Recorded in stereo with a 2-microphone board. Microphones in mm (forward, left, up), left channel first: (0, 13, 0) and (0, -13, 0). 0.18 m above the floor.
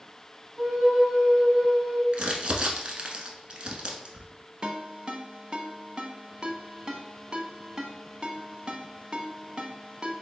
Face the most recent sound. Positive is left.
turn(degrees=-35)  # may be behind; listen again after turning